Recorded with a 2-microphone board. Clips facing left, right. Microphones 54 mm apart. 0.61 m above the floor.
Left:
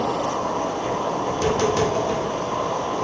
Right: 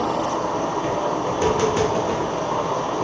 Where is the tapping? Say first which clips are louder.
Right 1 dB; 20° right (ahead or behind), 0.8 m.